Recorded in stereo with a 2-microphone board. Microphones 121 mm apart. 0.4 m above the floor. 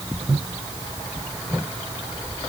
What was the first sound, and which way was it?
Only background noise.